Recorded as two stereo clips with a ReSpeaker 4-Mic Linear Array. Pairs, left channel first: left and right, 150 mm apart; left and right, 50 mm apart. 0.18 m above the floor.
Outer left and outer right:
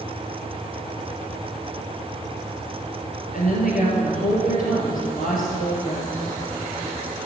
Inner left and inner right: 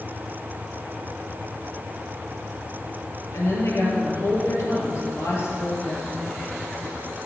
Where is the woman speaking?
65° left (ahead or behind), 4 m.